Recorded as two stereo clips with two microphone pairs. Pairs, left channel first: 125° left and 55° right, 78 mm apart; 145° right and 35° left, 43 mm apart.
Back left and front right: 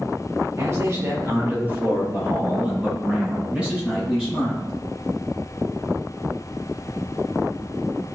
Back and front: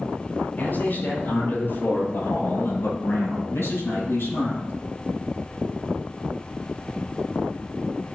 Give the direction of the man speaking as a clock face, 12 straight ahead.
3 o'clock.